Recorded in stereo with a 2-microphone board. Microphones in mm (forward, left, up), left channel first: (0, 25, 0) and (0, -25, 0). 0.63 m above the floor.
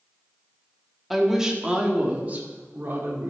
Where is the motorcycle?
I don't hear a motorcycle.